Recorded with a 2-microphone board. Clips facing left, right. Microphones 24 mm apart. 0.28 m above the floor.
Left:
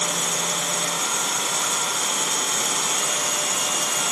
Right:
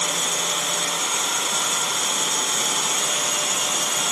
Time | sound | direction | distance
0.0 | running water | 15° right (ahead or behind) | 1.1 m